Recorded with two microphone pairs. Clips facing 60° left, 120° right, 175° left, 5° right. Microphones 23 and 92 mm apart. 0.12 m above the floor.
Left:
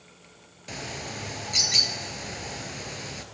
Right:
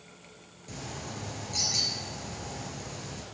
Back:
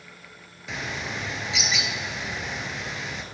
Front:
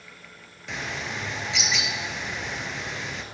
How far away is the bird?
About 1.3 m.